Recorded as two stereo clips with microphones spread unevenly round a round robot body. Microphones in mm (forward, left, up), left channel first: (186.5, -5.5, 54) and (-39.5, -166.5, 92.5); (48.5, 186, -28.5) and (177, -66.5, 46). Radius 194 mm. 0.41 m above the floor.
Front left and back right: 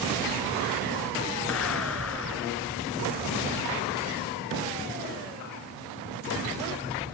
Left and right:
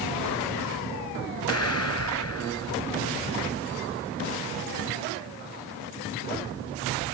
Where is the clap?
85° left.